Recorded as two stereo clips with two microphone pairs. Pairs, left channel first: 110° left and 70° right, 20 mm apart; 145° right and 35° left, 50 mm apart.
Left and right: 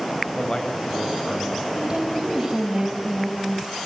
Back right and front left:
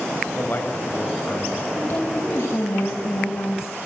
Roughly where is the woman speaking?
Behind right.